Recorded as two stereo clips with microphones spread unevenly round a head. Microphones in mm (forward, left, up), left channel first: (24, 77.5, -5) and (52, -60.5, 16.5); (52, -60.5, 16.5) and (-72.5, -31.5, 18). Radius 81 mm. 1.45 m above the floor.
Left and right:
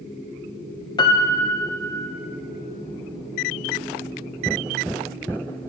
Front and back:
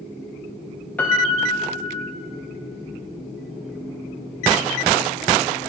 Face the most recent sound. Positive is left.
turn(degrees=60)